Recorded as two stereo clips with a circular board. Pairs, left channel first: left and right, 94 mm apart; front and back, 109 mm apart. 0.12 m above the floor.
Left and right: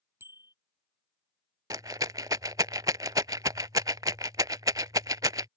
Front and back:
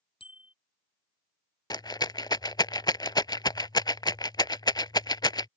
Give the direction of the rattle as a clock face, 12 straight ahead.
1 o'clock.